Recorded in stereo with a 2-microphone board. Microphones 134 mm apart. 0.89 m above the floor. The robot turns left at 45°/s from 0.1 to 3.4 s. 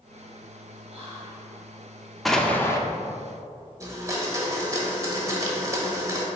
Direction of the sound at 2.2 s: Centre (ahead or behind).